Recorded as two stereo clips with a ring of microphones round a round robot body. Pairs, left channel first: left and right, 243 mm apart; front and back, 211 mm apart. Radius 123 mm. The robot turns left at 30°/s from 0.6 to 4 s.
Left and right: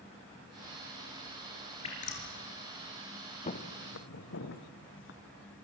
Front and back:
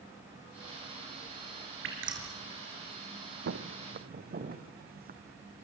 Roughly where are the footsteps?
Behind left.